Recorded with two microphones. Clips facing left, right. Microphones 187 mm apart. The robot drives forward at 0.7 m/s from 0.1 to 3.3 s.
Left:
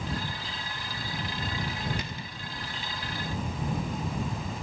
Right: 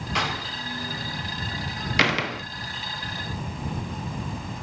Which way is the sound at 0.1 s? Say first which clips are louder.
Right 6 dB; 75° right (ahead or behind).